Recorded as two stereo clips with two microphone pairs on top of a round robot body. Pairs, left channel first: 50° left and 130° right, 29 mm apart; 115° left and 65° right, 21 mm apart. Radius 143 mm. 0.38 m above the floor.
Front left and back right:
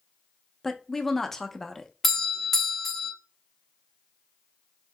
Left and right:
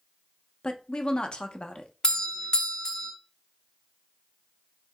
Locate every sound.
0.6 s a woman speaking: 110° left, 0.9 m
2.0 s a doorbell: 105° left, 1.2 m